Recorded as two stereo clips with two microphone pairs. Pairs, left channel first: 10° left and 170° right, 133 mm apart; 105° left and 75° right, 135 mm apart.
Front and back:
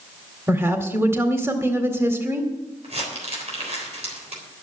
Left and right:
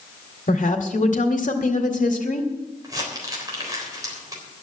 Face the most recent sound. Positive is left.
turn(degrees=-135)